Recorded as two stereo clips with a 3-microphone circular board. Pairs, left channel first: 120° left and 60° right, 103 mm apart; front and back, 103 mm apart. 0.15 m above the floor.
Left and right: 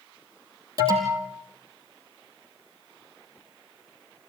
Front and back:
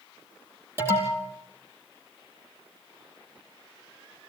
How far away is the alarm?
About 4 m.